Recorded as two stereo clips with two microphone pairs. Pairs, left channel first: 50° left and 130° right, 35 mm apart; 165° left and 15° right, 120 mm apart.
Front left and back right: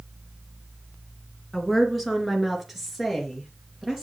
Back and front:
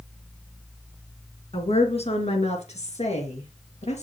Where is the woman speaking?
145° left, 3 m; by 4.0 s 150° left, 4.5 m.